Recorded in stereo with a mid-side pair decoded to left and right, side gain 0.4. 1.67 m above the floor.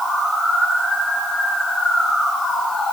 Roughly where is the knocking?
I don't hear knocking.